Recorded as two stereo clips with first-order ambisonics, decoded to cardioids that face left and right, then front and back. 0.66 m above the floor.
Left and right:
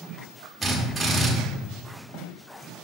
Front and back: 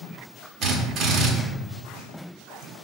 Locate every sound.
0.6 s a drill: 160° right, 0.9 m